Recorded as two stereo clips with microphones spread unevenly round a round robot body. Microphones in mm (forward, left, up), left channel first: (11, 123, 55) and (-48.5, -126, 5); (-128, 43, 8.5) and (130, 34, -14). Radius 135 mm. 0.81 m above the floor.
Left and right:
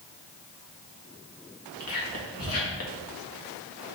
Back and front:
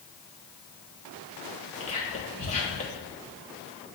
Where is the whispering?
115° left, 1.3 m.